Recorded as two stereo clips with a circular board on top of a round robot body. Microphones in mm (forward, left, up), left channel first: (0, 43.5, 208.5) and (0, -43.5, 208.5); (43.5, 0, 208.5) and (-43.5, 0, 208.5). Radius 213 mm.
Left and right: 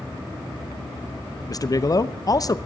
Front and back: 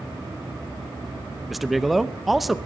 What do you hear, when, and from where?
1.5 s a man speaking: 90° left, 1.0 m